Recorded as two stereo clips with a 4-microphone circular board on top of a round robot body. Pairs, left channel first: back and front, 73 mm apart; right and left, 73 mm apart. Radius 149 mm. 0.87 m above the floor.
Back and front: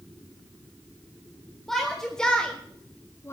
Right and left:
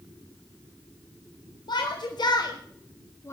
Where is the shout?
95° right, 2 m; by 3.3 s 135° right, 0.8 m.